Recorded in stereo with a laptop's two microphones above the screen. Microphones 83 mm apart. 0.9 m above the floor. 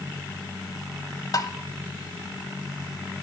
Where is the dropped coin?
No dropped coin in this recording.